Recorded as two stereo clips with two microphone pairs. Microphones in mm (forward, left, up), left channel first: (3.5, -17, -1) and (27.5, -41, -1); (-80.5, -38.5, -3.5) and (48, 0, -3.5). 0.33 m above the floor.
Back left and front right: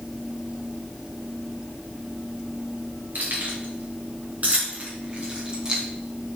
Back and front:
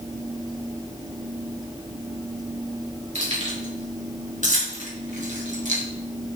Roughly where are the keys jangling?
Ahead.